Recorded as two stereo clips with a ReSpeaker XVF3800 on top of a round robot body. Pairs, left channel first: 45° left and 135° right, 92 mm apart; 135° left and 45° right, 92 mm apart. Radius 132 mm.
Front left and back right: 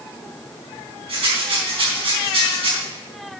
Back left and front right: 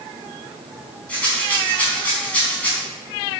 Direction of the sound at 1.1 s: 150° right.